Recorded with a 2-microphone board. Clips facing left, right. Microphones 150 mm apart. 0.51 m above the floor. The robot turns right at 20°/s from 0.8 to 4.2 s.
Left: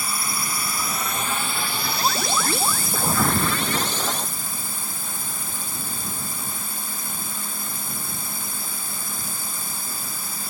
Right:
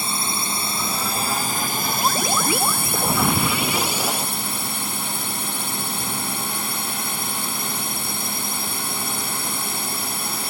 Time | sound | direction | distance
0.0 | a drone | 150° right | ?